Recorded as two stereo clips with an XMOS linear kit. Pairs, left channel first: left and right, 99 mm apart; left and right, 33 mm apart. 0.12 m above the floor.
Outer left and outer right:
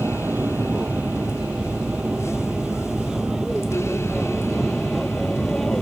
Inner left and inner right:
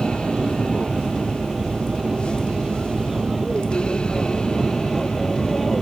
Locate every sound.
0.0 s an aircraft: 15° right (ahead or behind); by 5.8 s 5° left (ahead or behind)